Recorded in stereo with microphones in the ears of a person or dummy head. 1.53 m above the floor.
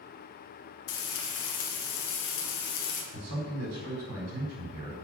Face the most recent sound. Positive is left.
turn(degrees=-80)